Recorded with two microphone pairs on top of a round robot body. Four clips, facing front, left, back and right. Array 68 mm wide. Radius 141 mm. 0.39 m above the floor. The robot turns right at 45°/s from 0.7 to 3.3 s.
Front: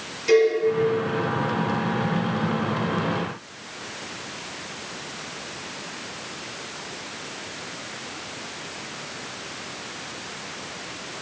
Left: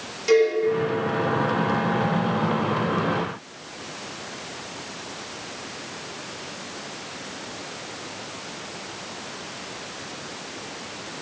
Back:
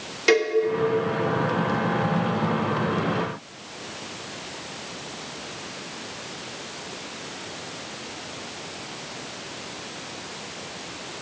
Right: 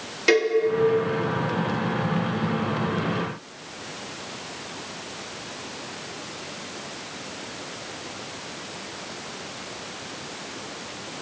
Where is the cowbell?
145° right, 1.0 m.